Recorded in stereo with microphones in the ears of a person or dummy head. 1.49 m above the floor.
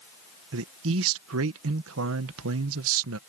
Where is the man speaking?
80° right.